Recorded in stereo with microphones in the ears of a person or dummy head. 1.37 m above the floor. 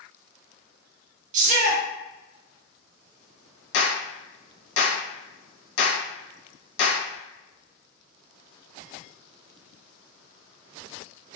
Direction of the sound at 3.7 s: 60° left (ahead or behind).